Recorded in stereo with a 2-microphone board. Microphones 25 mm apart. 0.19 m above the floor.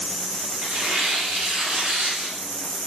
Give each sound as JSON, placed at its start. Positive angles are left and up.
{"t": 0.6, "sound": "tearing paper", "side_deg": -85, "distance_m": 9.0}